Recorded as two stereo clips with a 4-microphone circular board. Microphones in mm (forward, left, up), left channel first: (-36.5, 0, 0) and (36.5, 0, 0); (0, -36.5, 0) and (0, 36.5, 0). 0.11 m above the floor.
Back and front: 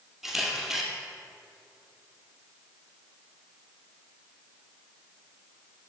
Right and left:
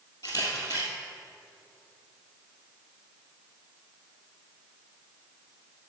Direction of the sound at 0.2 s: 85° right.